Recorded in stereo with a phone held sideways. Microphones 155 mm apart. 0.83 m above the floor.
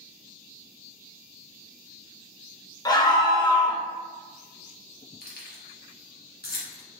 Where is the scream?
25° left (ahead or behind), 0.5 m.